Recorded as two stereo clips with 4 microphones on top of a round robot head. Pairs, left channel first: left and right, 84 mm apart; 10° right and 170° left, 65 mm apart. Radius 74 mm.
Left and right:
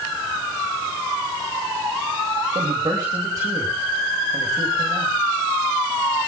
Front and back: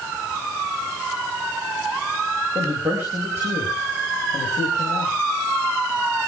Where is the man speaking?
145° right, 5 m.